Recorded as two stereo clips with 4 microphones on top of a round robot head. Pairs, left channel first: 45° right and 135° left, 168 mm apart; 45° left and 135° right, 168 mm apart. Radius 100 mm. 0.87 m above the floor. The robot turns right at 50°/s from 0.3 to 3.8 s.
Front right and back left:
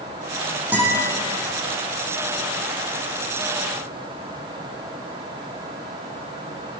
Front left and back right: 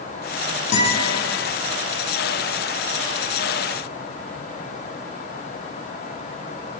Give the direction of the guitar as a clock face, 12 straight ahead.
10 o'clock.